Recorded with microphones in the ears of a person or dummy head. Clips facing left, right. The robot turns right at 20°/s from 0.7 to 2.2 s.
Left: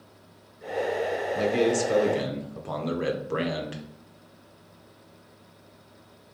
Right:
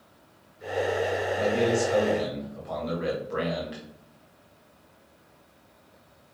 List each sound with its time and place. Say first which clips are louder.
1.4 s a man speaking: left 1 dB; 65° left (ahead or behind), 0.9 m; by 3.8 s 50° left (ahead or behind), 0.9 m